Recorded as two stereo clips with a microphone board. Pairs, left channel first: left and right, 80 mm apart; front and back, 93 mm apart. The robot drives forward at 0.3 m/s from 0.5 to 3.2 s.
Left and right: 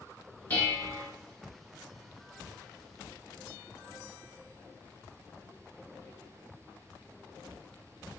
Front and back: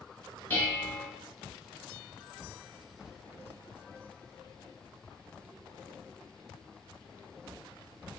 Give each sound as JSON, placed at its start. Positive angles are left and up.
{"t": 0.5, "sound": "dishes clattering", "azimuth_deg": 45, "distance_m": 1.1}